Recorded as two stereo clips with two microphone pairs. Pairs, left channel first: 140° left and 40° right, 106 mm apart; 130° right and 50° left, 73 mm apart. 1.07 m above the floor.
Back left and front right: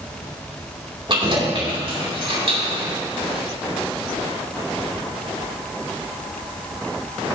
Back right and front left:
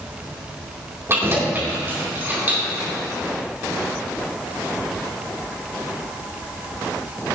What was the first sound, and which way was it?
Keys jangling, 5° right.